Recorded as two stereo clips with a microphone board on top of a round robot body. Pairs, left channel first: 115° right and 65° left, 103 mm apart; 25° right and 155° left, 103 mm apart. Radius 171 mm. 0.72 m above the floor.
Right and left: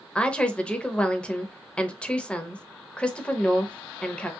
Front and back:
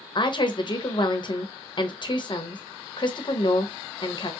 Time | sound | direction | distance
0.1 | a woman speaking | 35° right | 0.8 m